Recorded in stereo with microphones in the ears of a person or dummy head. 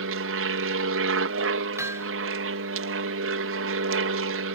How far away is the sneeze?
No sneeze in this recording.